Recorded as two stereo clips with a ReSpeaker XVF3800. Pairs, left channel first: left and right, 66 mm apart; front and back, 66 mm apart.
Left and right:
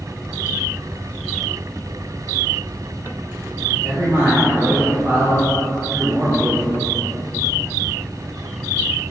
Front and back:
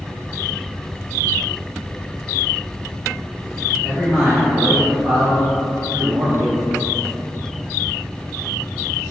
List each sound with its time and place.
3.7 s a man speaking: 120° right, 1.7 m; by 6.9 s 170° left, 0.5 m